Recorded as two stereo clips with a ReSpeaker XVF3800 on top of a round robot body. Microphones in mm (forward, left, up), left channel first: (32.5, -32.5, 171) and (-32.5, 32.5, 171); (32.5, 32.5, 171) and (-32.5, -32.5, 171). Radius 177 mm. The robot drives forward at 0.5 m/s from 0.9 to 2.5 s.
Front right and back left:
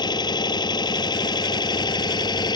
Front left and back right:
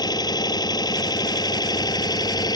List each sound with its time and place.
0.0 s an engine running: straight ahead